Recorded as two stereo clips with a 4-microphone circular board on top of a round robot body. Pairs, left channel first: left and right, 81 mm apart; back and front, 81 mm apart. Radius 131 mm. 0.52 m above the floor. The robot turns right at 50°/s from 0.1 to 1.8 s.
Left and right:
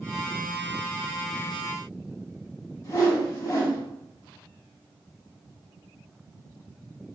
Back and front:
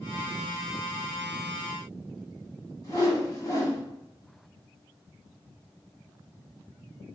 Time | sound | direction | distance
2.8 | a whoosh | 135° left | 1.7 m